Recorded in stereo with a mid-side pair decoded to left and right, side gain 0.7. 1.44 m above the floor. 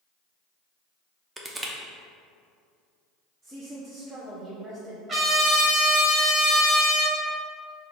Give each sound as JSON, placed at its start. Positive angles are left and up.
{"t": 1.4, "sound": "crushing", "azimuth_deg": -15, "distance_m": 0.7}
{"t": 3.4, "sound": "a woman speaking", "azimuth_deg": -25, "distance_m": 0.8}
{"t": 5.1, "sound": "a trumpet", "azimuth_deg": -25, "distance_m": 1.1}